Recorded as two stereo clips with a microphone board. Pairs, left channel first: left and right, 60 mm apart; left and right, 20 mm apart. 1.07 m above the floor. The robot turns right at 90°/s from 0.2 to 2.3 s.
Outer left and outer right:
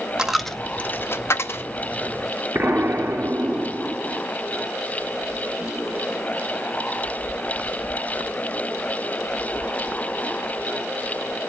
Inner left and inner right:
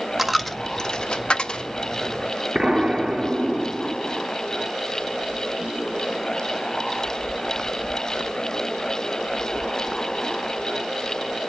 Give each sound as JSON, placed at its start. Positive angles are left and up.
{"t": 0.2, "sound": "a dropped coin", "side_deg": -10, "distance_m": 0.5}
{"t": 2.5, "sound": "an explosion", "side_deg": -50, "distance_m": 1.5}